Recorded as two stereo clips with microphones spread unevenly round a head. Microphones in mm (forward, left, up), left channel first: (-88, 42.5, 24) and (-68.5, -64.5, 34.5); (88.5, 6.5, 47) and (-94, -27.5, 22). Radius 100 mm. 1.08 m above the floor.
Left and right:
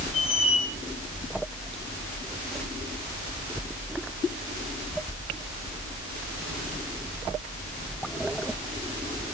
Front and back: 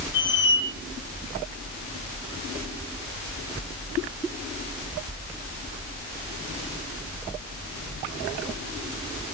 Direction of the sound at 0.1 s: 40° left.